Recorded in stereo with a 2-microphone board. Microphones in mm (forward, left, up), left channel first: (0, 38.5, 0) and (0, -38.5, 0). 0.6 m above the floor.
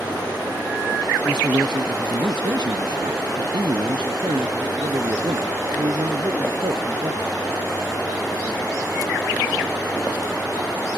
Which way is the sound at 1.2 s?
75° right (ahead or behind).